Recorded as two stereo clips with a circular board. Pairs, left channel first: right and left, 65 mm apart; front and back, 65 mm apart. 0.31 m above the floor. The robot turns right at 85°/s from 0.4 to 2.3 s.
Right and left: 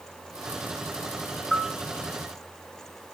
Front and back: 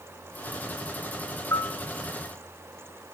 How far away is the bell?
About 0.7 m.